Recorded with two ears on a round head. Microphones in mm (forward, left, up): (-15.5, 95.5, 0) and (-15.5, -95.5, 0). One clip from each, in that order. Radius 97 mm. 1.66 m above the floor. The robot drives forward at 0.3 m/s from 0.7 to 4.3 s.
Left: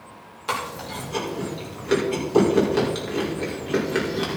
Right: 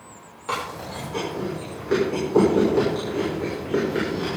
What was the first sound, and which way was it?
Chewing, 55° left (ahead or behind).